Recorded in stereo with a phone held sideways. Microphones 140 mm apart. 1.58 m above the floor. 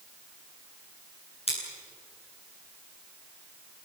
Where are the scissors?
50° left (ahead or behind), 9.5 m.